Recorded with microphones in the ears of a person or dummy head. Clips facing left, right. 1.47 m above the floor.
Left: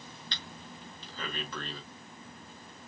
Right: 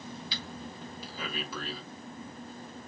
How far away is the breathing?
About 2.5 m.